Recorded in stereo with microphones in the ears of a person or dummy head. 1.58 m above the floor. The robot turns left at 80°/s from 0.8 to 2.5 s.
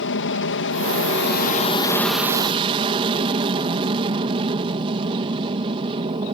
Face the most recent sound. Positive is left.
turn(degrees=-30)